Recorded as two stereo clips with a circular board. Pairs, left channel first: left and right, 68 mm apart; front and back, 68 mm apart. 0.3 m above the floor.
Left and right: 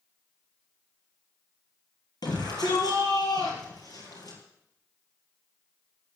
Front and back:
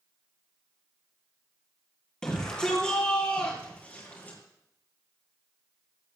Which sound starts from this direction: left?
A shout, at 2.2 s.